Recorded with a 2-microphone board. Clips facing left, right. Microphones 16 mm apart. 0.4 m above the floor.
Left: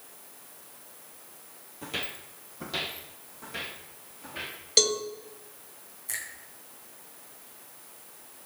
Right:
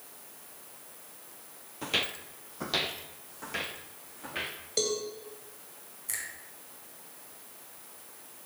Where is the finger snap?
Centre (ahead or behind), 3 m.